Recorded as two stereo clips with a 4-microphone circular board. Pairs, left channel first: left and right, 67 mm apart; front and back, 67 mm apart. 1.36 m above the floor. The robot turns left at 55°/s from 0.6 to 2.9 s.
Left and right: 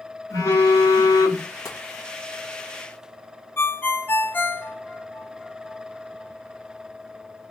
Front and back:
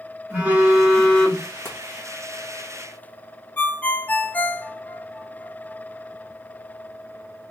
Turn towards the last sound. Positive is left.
turn(degrees=55)